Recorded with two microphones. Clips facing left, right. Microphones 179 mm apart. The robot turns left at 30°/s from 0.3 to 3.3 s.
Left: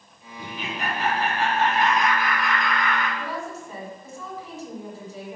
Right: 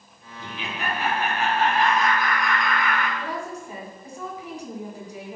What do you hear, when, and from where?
0.4 s laughter: 70° left, 2.5 m; by 3.1 s 15° right, 2.5 m
3.2 s a woman speaking: 15° right (ahead or behind), 2 m